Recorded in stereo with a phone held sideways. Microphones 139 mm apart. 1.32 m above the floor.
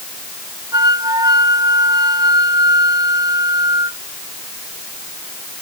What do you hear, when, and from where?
0.7 s a flute: 25° right (ahead or behind)